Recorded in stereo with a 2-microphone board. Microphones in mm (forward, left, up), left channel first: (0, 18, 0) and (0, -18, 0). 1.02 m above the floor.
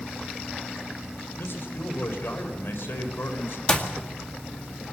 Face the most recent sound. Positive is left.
turn(degrees=25)  # may be behind; listen again after turning